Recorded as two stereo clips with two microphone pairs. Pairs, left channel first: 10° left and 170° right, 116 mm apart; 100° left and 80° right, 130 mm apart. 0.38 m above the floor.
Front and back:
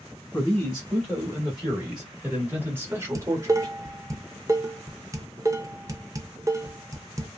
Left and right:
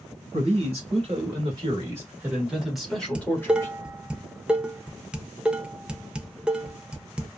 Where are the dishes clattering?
150° right, 0.5 m.